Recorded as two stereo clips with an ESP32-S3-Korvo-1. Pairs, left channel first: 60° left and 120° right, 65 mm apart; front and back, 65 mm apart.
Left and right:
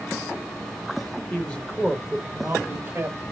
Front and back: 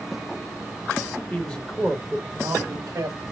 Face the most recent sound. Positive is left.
turn(degrees=-165)